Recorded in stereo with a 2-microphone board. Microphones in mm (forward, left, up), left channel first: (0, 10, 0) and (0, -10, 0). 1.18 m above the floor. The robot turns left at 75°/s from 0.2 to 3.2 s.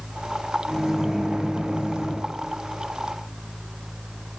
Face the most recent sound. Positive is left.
turn(degrees=165)